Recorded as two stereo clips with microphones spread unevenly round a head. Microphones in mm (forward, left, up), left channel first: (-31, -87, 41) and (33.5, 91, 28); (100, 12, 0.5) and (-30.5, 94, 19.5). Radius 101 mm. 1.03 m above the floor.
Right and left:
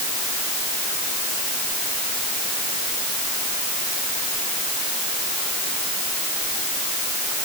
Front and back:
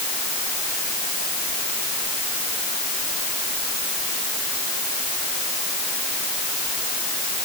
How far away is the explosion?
I don't hear an explosion.